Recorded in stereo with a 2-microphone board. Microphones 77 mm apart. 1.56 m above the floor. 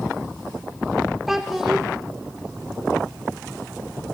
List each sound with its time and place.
1.3 s a child speaking: 5° right (ahead or behind), 1.3 m